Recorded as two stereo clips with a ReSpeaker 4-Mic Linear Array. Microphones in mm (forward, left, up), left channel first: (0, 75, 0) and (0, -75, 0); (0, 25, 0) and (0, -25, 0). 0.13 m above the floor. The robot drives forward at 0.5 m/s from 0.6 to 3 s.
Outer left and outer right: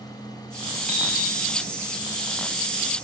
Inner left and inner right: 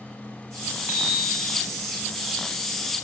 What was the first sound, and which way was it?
A bicycle bell, 55° right (ahead or behind).